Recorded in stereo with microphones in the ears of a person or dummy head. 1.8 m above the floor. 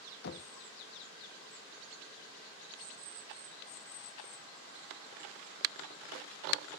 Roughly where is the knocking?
Left.